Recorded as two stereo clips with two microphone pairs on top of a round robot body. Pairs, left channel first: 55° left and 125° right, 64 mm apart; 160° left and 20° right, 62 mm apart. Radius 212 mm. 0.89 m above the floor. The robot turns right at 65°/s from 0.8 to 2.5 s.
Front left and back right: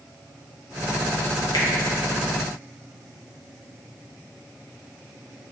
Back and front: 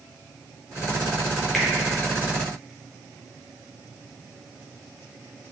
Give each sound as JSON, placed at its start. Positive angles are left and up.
{"t": 1.5, "sound": "a finger snap", "azimuth_deg": 80, "distance_m": 0.8}